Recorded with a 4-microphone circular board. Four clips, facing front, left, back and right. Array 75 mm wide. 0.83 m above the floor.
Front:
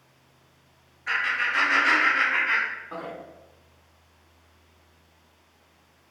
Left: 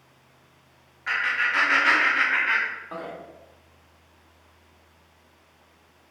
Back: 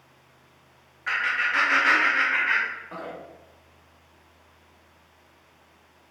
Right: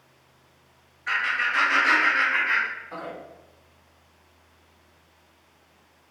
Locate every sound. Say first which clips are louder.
1.1 s laughter: even, back 1 dB; 145° left, 1.5 m; by 3.1 s 80° left, 1.2 m